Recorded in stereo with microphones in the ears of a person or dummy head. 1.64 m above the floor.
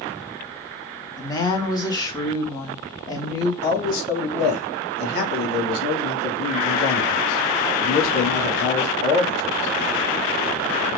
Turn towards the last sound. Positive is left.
turn(degrees=55)  # may be behind; listen again after turning